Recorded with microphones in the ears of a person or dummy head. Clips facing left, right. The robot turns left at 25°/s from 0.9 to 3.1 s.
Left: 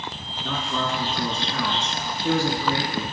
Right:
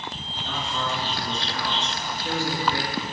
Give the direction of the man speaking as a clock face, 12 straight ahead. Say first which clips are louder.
Left 3 dB; 8 o'clock.